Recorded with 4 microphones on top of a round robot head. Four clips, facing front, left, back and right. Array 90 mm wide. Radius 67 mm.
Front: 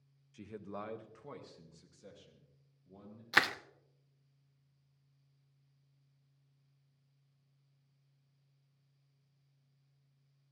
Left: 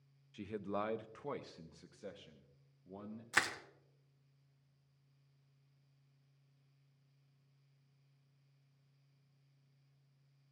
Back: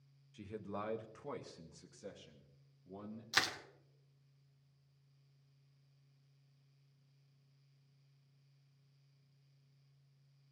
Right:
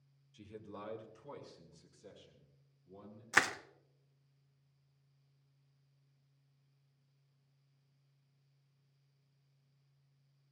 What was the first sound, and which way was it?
A man speaking, 75° left.